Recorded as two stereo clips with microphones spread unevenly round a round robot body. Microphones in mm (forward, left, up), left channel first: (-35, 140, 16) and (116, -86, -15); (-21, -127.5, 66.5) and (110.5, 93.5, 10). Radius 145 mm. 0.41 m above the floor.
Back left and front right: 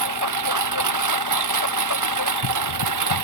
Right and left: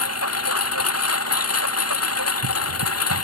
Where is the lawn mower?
90° right.